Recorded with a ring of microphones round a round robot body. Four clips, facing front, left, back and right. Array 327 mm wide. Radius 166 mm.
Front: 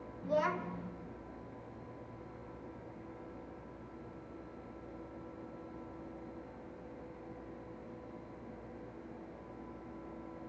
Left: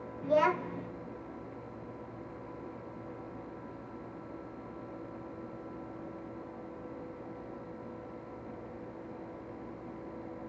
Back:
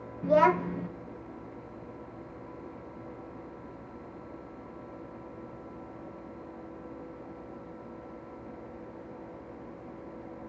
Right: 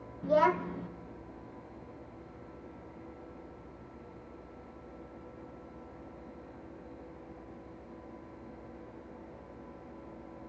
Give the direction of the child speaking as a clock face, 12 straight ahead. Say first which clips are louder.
Right 1 dB, back 11 dB; 6 o'clock.